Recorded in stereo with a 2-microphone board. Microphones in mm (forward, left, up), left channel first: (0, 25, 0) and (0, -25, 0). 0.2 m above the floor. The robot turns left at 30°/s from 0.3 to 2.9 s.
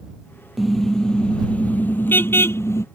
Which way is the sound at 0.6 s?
Straight behind.